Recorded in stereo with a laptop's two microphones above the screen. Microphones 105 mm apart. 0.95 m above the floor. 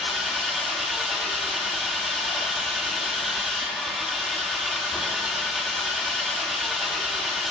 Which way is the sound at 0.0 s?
Centre (ahead or behind).